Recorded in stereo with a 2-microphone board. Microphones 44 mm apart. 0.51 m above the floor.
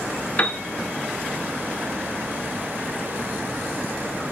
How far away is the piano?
About 1.2 m.